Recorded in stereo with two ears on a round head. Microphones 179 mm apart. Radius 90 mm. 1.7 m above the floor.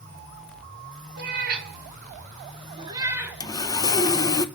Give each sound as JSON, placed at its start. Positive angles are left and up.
{"t": 1.2, "sound": "a cat meowing", "side_deg": -50, "distance_m": 2.5}
{"t": 3.4, "sound": "sawing", "side_deg": 20, "distance_m": 0.9}